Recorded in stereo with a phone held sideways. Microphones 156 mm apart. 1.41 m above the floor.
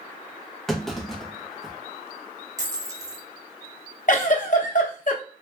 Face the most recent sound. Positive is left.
turn(degrees=55)  # may be behind; listen again after turning